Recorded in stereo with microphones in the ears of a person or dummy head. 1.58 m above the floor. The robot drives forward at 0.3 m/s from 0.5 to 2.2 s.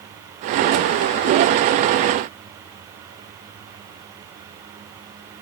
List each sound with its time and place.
Only background noise.